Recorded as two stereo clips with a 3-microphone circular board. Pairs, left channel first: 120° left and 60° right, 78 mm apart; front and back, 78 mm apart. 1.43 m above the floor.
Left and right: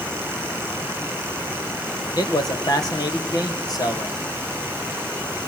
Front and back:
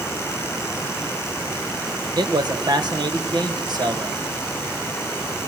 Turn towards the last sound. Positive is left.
turn(degrees=155)